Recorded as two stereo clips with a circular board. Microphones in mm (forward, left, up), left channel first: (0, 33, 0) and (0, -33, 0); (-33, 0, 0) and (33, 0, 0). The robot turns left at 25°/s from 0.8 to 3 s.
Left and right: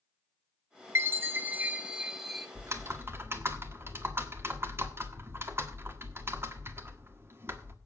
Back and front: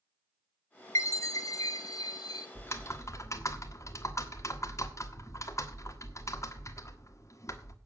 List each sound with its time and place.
0.9 s a chime: 140° right, 0.9 m; by 2.5 s 175° right, 0.9 m
2.5 s typing on a keyboard: 130° right, 1.3 m; by 7.8 s 140° right, 1.3 m